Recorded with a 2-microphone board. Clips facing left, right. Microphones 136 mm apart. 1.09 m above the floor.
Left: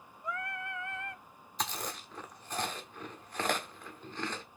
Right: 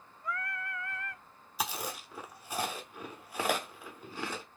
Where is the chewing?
10° right (ahead or behind), 1.4 m.